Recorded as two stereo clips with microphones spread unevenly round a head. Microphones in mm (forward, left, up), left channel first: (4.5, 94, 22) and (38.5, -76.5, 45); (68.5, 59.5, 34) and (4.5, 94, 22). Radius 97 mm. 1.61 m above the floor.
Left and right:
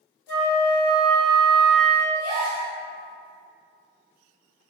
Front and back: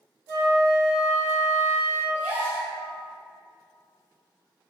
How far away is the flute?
About 1.2 m.